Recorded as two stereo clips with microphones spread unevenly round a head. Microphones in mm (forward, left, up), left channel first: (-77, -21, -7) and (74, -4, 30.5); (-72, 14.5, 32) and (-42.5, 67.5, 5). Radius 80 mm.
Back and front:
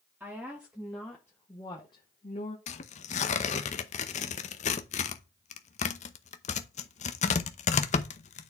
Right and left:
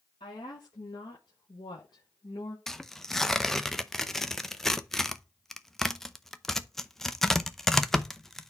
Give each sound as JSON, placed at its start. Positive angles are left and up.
{"t": 0.2, "sound": "a woman speaking", "azimuth_deg": -80, "distance_m": 1.7}
{"t": 2.7, "sound": "tearing paper", "azimuth_deg": 150, "distance_m": 0.7}